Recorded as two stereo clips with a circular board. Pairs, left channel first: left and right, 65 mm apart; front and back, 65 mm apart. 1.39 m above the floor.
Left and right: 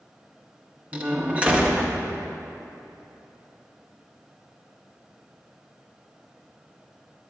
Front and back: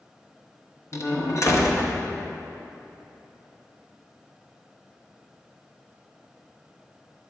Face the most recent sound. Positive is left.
turn(degrees=-25)